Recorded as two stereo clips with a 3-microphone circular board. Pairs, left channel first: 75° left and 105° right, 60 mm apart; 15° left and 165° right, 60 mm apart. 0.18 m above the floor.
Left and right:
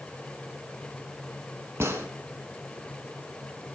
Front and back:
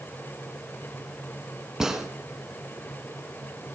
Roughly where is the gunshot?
Right.